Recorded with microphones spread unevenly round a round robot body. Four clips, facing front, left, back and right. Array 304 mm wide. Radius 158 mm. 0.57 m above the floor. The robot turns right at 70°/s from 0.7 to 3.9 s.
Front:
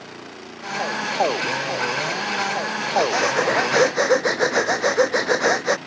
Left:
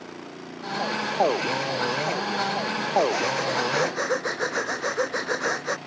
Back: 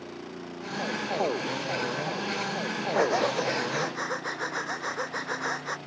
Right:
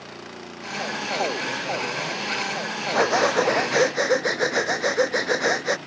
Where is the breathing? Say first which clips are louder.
Right 4 dB, front 5 dB; 90° right; by 5.8 s 20° right.